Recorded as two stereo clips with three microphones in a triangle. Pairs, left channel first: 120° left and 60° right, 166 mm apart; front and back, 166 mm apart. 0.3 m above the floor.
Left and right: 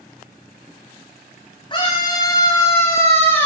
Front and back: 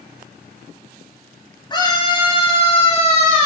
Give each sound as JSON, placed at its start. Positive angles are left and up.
{"t": 1.7, "sound": "a scream", "azimuth_deg": 60, "distance_m": 6.0}